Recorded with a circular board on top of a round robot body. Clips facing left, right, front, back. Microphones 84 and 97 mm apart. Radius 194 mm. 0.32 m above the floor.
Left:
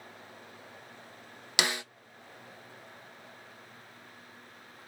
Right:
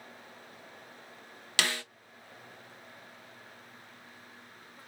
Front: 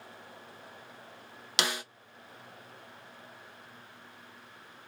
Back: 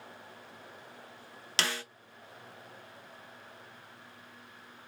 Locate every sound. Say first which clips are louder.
1.6 s a snare drum: left 1 dB, front 2 dB; 50° left, 1.0 m